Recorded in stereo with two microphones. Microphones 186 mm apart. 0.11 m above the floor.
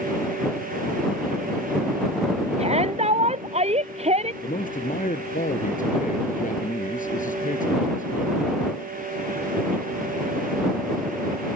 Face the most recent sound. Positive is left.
turn(degrees=45)  # may be behind; listen again after turning